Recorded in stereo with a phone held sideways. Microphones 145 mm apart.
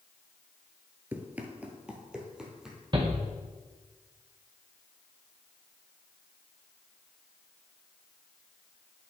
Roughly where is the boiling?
I don't hear boiling.